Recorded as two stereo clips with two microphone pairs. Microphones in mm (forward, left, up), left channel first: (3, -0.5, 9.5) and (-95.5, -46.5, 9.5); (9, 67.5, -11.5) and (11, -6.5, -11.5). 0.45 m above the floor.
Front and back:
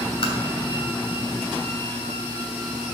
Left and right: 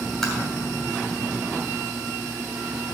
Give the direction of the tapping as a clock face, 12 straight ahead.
12 o'clock.